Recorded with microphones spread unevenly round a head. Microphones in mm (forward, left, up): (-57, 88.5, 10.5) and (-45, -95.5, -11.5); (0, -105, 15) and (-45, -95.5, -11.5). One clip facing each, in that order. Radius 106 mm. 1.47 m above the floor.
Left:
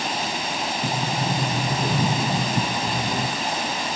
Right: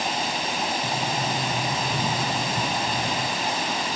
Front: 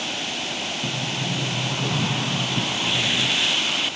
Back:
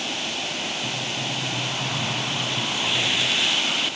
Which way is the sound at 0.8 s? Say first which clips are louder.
Left 2 dB, front 1 dB; 40° left.